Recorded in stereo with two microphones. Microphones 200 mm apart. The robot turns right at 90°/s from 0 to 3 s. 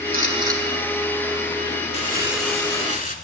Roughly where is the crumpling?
Ahead right.